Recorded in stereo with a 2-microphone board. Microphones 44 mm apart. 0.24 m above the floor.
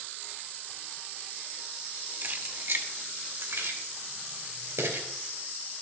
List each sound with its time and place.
2.2 s keys jangling: 40° right (ahead or behind), 0.8 m; by 5.1 s 75° right (ahead or behind), 2.5 m